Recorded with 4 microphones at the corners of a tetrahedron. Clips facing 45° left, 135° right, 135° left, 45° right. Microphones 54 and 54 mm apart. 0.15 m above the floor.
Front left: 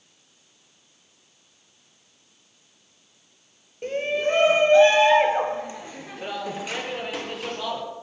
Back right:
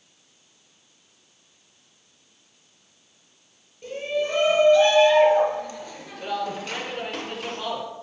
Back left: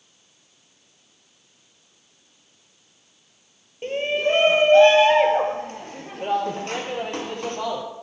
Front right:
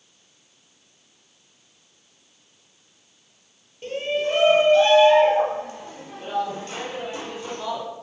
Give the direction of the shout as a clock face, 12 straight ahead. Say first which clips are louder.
Front left 2 dB, back left 2 dB; 9 o'clock.